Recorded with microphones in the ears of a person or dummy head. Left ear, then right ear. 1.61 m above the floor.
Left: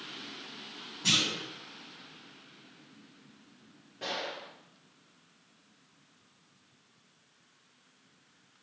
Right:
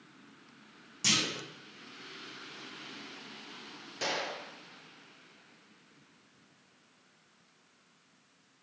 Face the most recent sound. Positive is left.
turn(degrees=-75)  # may be behind; listen again after turning